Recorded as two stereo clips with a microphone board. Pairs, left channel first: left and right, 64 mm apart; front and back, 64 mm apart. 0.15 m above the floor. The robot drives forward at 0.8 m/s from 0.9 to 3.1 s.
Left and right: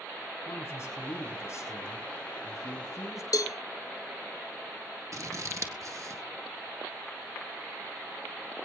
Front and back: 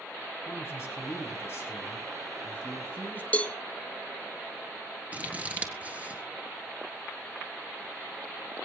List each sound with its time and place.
0.5 s a man speaking: 45° left, 6 m; by 3.2 s 60° left, 5 m
3.3 s a cowbell: 70° left, 0.7 m
5.1 s scissors: 115° right, 1.7 m